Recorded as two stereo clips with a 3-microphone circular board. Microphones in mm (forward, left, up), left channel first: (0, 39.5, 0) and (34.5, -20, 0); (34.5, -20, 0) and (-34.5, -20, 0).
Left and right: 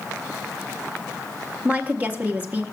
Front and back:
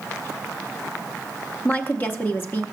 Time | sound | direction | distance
1.6 | a woman speaking | 20° right | 0.7 m